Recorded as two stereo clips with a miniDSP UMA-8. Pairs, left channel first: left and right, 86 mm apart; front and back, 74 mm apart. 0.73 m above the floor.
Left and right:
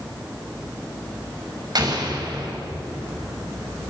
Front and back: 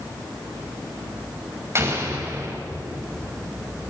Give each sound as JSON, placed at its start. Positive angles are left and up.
{"t": 1.8, "sound": "an explosion", "azimuth_deg": -125, "distance_m": 5.0}